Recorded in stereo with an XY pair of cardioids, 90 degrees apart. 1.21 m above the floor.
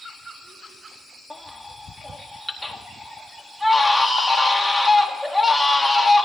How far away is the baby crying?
About 1.3 m.